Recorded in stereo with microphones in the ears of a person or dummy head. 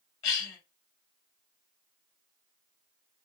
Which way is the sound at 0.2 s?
20° left (ahead or behind).